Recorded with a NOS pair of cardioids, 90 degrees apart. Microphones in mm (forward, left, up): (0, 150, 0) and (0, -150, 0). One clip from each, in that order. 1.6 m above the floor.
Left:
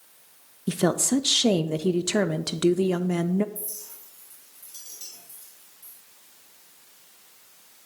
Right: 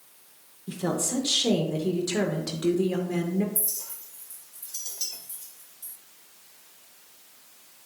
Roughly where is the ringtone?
No ringtone in this recording.